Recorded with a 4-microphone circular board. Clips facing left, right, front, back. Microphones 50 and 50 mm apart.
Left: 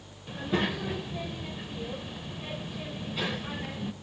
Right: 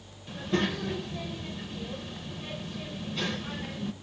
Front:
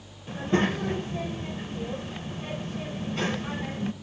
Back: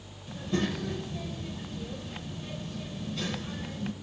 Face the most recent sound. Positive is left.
turn(degrees=10)